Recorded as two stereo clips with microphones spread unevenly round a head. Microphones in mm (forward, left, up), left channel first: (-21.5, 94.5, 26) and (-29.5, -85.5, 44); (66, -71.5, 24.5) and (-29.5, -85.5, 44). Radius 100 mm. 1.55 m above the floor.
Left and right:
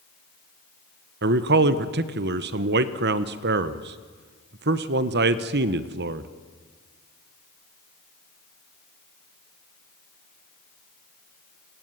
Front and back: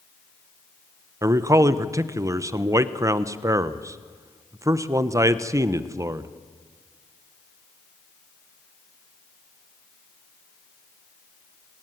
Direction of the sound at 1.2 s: 120° right.